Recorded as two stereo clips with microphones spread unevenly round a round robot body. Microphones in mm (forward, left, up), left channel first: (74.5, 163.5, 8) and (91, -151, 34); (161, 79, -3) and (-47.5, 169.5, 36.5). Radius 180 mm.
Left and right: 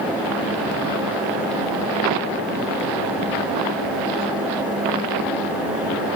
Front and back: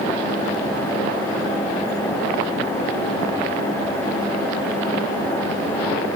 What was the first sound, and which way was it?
Only background noise.